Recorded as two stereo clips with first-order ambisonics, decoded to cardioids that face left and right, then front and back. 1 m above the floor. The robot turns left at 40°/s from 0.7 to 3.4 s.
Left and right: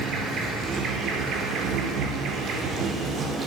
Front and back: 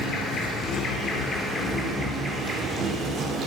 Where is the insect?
45° right, 0.7 m; by 3.5 s 155° right, 0.7 m.